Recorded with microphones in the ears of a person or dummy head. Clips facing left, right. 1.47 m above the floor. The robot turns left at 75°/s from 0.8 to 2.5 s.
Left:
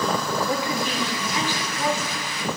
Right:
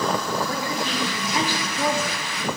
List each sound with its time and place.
0.5 s a woman speaking: 15° left, 1.5 m; by 2.2 s 95° right, 1.5 m